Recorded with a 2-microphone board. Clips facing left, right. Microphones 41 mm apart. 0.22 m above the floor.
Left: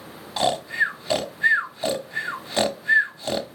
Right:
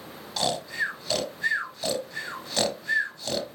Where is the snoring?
25° left (ahead or behind), 0.9 m.